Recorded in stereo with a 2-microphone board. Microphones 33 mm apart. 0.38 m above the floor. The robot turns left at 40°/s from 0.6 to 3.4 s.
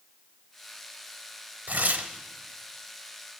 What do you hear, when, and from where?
1.7 s tearing paper: 65° right (ahead or behind), 0.8 m; by 2.1 s 55° right (ahead or behind), 0.8 m